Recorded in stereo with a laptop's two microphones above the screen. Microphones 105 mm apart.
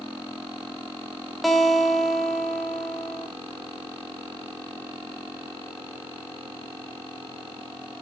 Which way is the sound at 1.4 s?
Centre (ahead or behind).